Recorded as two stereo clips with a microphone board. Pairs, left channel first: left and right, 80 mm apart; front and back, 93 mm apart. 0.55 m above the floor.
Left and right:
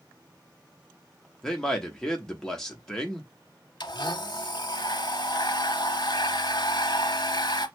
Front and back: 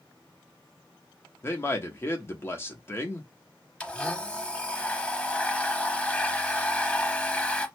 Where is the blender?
75° left, 0.7 m.